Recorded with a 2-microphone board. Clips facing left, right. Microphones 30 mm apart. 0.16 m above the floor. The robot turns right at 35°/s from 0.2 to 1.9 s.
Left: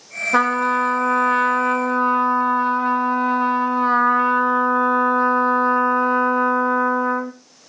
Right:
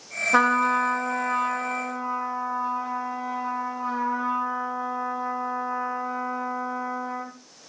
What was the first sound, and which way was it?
A trumpet, 5° left.